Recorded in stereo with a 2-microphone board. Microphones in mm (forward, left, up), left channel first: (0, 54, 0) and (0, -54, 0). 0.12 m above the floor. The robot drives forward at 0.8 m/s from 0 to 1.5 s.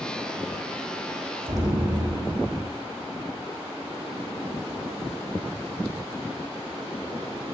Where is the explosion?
35° right (ahead or behind), 2.5 m.